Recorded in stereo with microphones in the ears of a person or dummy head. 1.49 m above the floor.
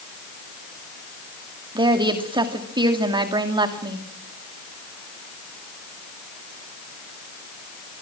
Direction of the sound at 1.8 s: 25° right (ahead or behind).